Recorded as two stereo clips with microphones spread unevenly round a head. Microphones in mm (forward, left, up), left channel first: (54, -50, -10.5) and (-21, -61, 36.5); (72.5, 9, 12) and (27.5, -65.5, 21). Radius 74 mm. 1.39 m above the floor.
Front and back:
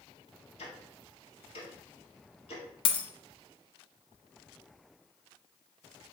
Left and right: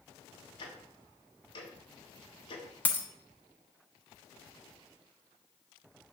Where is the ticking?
30° left, 1.6 m.